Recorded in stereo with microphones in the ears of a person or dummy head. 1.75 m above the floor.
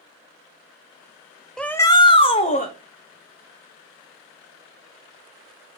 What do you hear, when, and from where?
1.6 s a shout: centre (ahead or behind), 0.6 m; by 2.7 s 35° left (ahead or behind), 1.3 m